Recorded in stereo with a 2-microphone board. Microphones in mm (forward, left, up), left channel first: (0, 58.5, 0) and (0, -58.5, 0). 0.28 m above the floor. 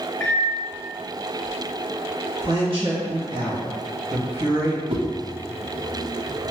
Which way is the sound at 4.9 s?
50° right (ahead or behind).